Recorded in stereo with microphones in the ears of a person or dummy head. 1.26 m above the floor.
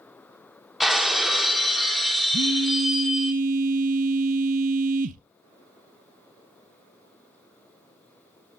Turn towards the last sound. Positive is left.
turn(degrees=-45)  # may be behind; listen again after turning